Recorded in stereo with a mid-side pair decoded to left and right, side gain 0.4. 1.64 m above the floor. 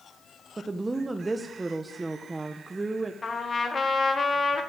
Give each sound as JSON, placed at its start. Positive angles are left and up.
{"t": 0.6, "sound": "a woman speaking", "azimuth_deg": -25, "distance_m": 1.2}
{"t": 3.2, "sound": "a trumpet", "azimuth_deg": 35, "distance_m": 2.0}